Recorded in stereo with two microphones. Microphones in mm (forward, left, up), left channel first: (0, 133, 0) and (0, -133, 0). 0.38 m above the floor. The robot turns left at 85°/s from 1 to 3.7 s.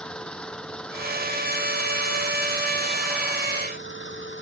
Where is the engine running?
5° left; by 4.4 s 135° left.